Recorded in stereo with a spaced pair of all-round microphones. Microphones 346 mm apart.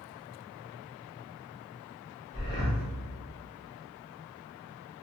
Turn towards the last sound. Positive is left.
turn(degrees=20)  # may be behind; listen again after turning